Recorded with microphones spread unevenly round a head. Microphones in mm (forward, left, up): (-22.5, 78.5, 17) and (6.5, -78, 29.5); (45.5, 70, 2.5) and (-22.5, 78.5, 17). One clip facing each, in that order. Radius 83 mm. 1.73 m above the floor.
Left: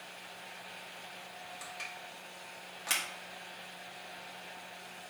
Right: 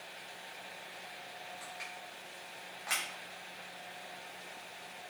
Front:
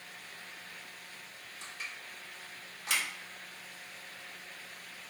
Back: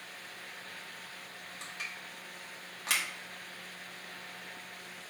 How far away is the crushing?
About 2 m.